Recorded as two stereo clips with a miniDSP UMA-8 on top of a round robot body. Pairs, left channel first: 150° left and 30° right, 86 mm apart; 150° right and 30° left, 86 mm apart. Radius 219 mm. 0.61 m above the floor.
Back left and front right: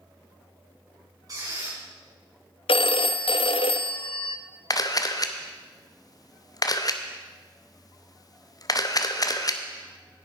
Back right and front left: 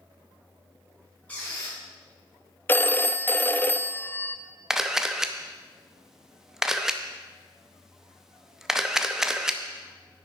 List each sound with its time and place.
1.3 s a squeak: 75° right, 6 m
2.7 s a phone ringing: 145° left, 0.5 m
4.7 s a camera shutter: 115° left, 1.1 m